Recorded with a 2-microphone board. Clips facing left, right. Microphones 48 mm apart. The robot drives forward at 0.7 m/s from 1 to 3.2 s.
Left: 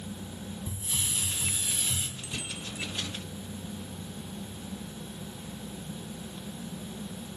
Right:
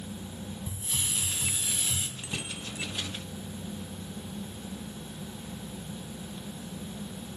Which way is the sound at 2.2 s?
25° right (ahead or behind).